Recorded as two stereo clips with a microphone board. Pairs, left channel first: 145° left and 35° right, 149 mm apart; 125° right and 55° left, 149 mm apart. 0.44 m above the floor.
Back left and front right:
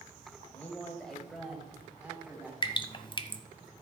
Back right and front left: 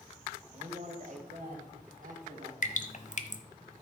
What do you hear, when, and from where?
0.5 s a man speaking: 70° left, 1.9 m; by 2.5 s 40° left, 3 m
2.6 s dripping: 155° right, 0.9 m